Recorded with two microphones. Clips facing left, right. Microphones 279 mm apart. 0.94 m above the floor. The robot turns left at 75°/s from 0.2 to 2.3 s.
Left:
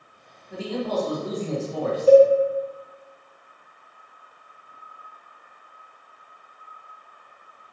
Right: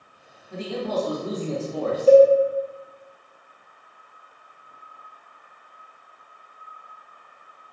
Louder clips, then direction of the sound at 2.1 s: Even; 15° right (ahead or behind).